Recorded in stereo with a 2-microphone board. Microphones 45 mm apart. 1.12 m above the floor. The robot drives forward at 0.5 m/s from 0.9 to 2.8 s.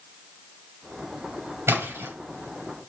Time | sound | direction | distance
1.7 | a splash | 75° right (ahead or behind) | 6 m